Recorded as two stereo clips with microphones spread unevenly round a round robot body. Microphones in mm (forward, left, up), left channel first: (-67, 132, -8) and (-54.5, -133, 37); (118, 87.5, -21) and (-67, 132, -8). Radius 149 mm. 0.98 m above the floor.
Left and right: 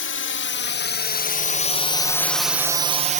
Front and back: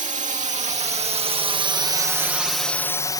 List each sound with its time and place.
0.0 s a drone: 120° left; by 3.2 s 40° right